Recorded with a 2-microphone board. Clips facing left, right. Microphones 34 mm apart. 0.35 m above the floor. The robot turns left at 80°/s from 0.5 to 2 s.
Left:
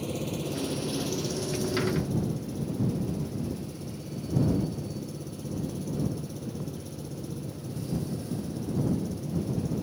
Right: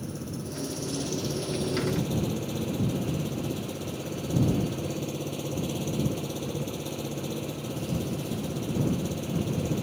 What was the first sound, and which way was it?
An engine running, 60° left.